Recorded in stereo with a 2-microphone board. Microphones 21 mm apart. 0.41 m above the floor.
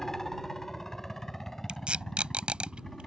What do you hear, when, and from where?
0.0 s a helicopter: 20° left (ahead or behind)
1.7 s tape being pulled: 65° right (ahead or behind)